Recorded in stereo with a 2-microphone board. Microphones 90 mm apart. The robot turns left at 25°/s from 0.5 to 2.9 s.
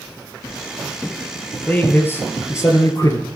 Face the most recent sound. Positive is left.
turn(degrees=130)